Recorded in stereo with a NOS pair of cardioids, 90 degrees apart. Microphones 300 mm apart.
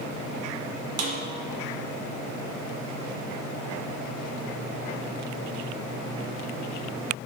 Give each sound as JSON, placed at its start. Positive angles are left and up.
{"t": 1.0, "sound": "a snare drum", "azimuth_deg": -55, "distance_m": 0.9}